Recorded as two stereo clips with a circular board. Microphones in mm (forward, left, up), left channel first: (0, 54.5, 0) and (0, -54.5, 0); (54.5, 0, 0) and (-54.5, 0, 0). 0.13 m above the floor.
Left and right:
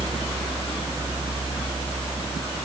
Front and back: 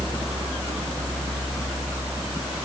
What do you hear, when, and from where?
Only background noise.